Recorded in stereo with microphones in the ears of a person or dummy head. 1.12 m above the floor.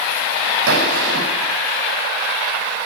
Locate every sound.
0.7 s a gunshot: 75° right (ahead or behind), 9 m